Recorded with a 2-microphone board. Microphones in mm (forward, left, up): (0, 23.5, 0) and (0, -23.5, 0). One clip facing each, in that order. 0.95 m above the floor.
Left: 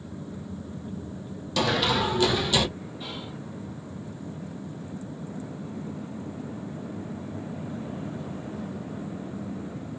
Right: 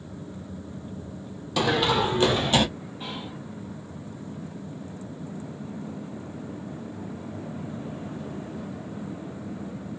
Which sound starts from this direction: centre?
Running footsteps, at 1.6 s.